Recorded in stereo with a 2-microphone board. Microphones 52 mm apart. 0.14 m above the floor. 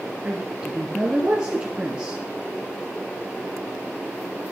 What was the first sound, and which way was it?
A woman speaking, 20° right (ahead or behind).